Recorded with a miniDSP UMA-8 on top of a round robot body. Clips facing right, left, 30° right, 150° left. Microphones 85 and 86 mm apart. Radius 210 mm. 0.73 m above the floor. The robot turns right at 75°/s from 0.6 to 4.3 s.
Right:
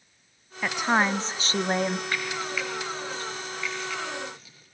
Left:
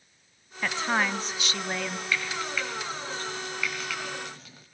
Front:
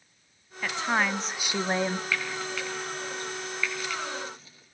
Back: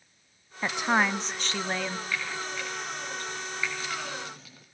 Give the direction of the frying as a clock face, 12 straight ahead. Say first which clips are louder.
Even, front 2 dB; 1 o'clock.